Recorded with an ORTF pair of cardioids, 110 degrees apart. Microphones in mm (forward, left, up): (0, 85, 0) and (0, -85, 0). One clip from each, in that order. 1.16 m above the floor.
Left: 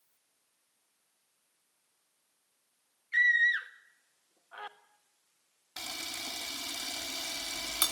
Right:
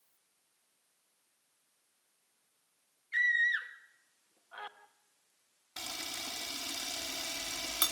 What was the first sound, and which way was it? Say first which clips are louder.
A scream: left 4 dB; 5° left.